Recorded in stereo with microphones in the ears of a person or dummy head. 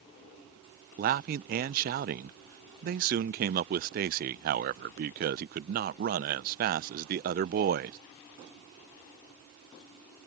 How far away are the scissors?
I don't hear scissors.